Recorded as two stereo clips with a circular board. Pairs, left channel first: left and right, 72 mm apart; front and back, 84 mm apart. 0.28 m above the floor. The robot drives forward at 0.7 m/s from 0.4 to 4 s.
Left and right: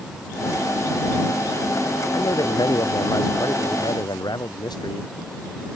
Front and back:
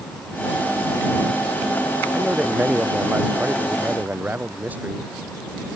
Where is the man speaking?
105° left; by 5.1 s 110° left.